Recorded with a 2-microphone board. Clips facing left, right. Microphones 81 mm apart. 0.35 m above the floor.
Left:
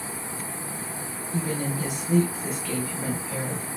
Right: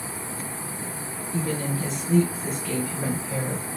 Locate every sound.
1.3 s a woman speaking: 20° left (ahead or behind), 1.7 m; by 3.7 s 25° right (ahead or behind), 1.4 m